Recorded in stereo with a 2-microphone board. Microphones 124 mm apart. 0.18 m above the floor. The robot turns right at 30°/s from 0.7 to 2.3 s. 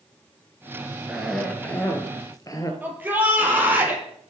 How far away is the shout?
About 6 m.